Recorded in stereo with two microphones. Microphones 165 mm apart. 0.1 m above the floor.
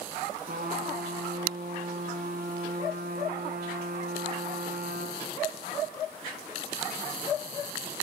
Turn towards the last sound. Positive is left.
turn(degrees=-60)  # may be behind; listen again after turning